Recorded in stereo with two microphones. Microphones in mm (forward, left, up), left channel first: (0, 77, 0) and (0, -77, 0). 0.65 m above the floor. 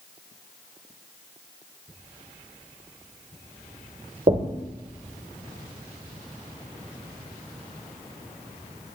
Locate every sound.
4.3 s knocking: 50° right (ahead or behind), 1.6 m